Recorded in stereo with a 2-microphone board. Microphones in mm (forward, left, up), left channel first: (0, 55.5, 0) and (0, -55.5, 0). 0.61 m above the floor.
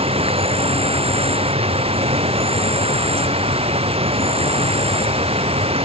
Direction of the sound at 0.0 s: 60° right (ahead or behind).